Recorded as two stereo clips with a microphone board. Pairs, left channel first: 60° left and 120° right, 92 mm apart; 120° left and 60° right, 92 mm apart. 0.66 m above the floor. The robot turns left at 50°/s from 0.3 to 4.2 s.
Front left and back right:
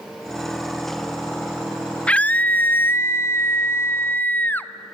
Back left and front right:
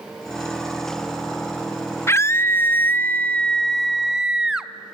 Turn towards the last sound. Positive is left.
turn(degrees=15)